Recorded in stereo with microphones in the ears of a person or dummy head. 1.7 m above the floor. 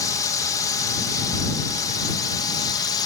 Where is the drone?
20° left (ahead or behind).